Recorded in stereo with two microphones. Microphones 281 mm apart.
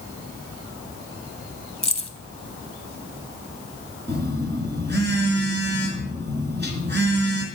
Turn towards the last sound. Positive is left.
turn(degrees=-40)  # may be behind; listen again after turning